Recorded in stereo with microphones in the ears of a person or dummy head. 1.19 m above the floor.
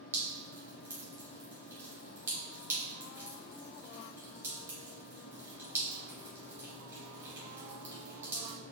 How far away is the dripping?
About 1.9 m.